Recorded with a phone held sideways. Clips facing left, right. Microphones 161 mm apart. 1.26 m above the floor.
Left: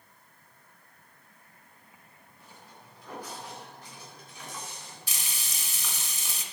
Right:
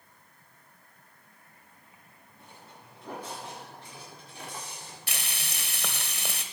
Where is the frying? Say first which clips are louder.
Right 7 dB; 65° right (ahead or behind), 1.6 m.